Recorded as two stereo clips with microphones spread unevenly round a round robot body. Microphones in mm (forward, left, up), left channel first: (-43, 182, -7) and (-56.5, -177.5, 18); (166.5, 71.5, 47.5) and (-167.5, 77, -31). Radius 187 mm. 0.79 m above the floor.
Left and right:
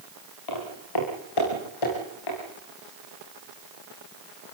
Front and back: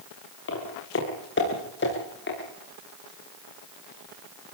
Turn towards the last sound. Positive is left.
turn(degrees=55)